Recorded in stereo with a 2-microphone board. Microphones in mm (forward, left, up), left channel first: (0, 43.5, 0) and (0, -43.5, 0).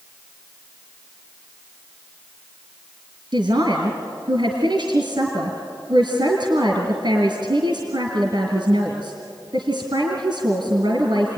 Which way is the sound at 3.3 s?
60° right (ahead or behind).